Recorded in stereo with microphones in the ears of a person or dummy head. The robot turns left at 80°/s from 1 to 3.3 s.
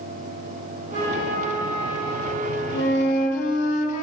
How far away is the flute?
About 1.2 m.